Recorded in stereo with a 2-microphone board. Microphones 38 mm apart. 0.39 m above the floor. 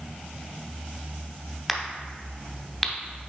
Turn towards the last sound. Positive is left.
turn(degrees=0)  # may be behind; listen again after turning